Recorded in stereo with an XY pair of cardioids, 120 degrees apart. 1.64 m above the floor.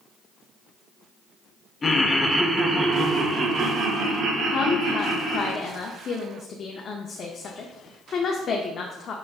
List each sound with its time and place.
1.8 s laughter: 25° left, 0.6 m; by 5.5 s 65° right, 1.8 m
4.5 s a woman speaking: 45° left, 0.5 m